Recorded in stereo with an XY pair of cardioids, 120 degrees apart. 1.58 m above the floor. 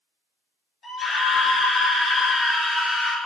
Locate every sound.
0.8 s a scream: 25° left, 4 m